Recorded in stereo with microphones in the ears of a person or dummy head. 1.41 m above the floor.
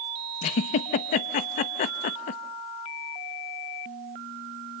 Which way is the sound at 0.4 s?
35° left (ahead or behind).